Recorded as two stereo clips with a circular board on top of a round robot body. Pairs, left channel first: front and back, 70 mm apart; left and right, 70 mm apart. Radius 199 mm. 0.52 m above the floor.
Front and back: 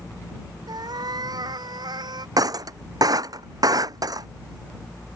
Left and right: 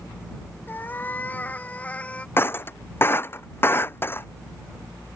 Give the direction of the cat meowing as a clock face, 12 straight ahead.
7 o'clock.